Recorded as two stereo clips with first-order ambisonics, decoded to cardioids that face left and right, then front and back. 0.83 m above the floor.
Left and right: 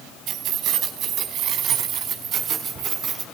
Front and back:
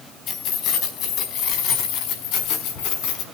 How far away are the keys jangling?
About 4 m.